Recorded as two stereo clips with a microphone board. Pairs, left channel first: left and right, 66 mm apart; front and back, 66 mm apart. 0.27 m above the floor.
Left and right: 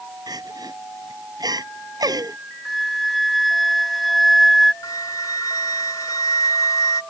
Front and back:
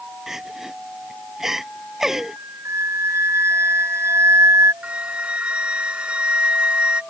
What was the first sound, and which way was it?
Crying, 95° right.